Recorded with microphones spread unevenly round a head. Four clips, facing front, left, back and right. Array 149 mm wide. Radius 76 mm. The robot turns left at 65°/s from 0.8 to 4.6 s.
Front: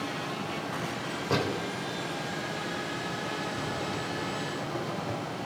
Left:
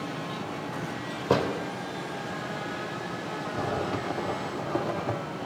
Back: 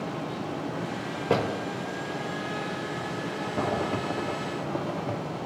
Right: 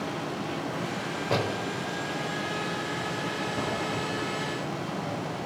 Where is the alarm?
No alarm in this recording.